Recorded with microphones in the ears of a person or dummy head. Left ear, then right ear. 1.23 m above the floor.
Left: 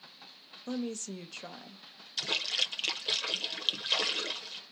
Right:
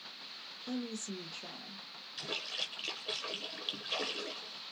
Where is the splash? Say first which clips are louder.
Left 8 dB; 30° left (ahead or behind), 0.8 m.